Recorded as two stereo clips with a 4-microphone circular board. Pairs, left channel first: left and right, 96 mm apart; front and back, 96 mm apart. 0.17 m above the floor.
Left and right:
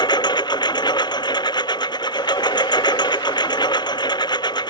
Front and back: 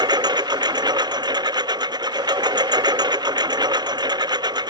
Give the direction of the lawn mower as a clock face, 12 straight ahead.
8 o'clock.